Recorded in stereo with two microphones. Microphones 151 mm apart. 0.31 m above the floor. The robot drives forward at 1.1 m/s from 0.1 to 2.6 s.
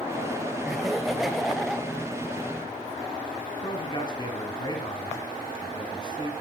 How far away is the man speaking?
About 4 m.